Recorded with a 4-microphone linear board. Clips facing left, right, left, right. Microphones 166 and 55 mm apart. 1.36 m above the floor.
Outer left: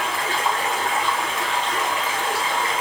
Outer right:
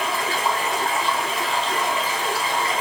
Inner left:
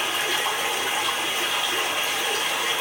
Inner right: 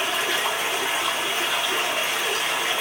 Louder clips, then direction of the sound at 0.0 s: Even, inner right 1 dB; 35° right (ahead or behind).